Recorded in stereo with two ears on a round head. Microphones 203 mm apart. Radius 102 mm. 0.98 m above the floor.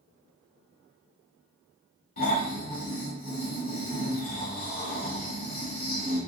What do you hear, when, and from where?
2.2 s snoring: 45° left (ahead or behind), 1.6 m